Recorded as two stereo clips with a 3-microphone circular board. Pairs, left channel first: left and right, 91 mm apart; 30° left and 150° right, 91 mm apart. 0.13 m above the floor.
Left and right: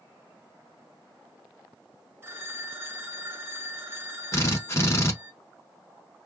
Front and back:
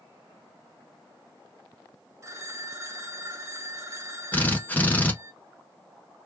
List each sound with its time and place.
2.2 s a phone ringing: 125° right, 0.7 m
4.3 s a drill: 80° left, 0.8 m